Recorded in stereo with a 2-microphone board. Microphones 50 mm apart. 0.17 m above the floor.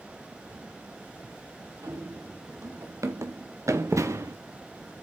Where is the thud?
35° right (ahead or behind), 2.5 m.